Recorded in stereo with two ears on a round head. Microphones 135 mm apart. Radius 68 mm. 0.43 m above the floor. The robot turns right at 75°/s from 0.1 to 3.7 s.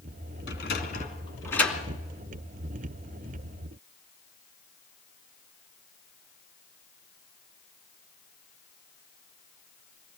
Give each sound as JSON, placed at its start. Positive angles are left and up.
{"t": 0.5, "sound": "a sliding door", "side_deg": 80, "distance_m": 2.5}